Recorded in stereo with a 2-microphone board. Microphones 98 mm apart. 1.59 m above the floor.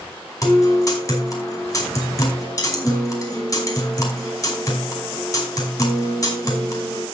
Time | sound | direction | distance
0.4 | a guitar | 35° left (ahead or behind) | 5 m